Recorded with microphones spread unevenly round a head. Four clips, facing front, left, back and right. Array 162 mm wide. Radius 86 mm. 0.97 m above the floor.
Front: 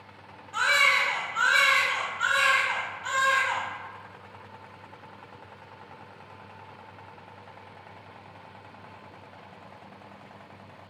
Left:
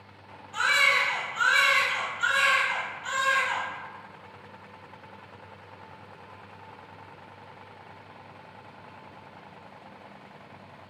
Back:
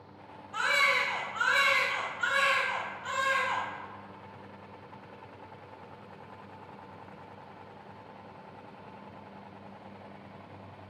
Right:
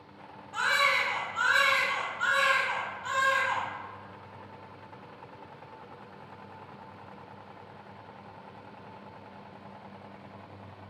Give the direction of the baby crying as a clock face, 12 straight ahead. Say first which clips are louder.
Left 2 dB, front 4 dB; 12 o'clock.